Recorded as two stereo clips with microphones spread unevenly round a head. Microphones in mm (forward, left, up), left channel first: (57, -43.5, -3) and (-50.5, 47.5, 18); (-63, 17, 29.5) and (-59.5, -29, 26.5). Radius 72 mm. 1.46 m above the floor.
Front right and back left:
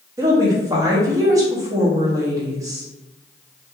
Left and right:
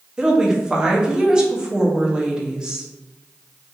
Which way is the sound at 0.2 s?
160° right.